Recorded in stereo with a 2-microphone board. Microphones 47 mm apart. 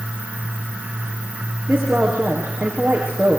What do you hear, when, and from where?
1.7 s a woman speaking: 20° right (ahead or behind), 5.5 m